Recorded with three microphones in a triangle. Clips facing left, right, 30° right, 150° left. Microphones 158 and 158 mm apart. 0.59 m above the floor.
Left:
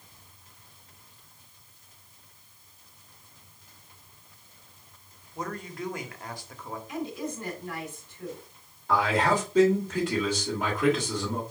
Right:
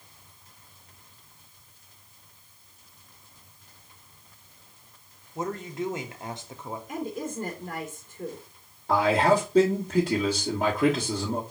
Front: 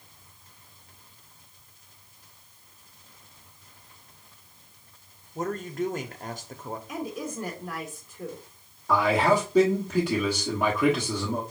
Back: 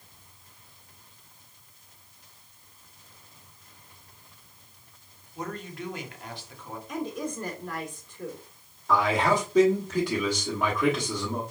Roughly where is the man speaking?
Right.